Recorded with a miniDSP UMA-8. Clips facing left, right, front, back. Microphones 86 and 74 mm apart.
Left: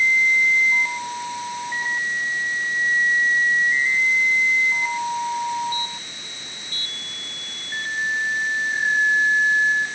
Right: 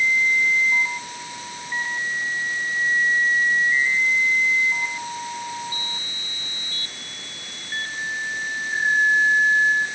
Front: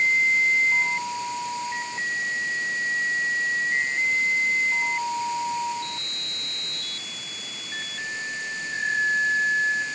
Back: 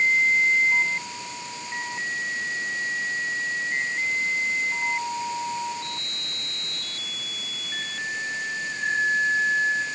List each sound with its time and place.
Only background noise.